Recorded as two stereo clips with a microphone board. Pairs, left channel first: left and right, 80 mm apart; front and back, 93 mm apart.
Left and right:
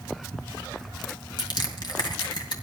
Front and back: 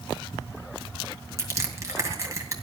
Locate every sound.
1.4 s crushing: 120° left, 2.5 m